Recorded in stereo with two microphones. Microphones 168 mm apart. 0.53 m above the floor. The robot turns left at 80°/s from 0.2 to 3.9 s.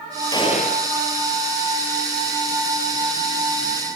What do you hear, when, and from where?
0.3 s a gunshot: 160° left, 4 m; by 0.9 s 115° left, 4 m